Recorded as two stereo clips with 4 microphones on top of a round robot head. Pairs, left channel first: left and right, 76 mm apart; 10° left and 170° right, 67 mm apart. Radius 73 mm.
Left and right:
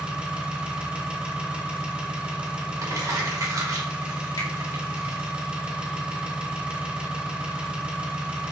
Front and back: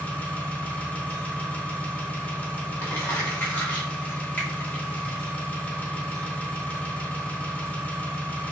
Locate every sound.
0.0 s an engine running: 30° right, 1.0 m
2.8 s crumpling: 50° right, 1.4 m
4.4 s a finger snap: 80° left, 1.9 m